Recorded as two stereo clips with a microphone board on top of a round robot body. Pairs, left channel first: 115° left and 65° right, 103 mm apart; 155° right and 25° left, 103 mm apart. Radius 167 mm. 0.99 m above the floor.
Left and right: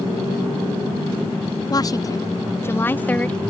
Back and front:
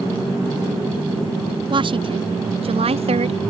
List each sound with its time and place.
1.7 s a woman speaking: 60° left; by 3.5 s 30° left